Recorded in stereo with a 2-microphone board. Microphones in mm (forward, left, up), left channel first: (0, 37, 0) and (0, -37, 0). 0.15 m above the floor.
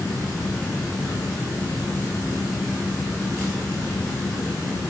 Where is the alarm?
No alarm in this recording.